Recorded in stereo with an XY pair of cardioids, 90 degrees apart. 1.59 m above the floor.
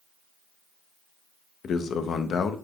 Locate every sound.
1.6 s a man speaking: 70° left, 0.6 m